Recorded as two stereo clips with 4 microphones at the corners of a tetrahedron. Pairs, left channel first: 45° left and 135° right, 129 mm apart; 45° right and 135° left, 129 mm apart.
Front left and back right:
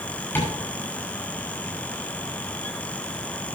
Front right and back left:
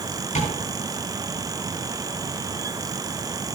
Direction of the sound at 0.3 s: 30° right.